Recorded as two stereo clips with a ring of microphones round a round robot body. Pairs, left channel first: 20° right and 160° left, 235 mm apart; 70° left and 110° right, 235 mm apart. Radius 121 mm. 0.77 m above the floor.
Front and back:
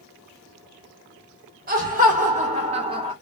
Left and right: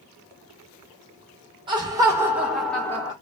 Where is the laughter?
170° right, 1.3 m; by 3.1 s 120° left, 1.1 m.